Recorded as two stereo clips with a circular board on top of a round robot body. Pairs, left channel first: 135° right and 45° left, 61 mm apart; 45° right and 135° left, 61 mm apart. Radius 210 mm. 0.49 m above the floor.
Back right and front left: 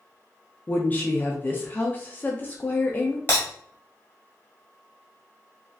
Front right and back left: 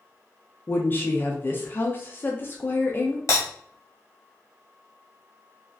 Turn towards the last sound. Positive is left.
turn(degrees=-80)